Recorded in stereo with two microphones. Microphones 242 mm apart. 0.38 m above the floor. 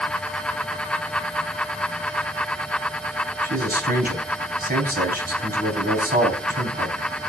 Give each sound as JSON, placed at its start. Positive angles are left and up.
{"t": 3.4, "sound": "a man speaking", "side_deg": -40, "distance_m": 3.5}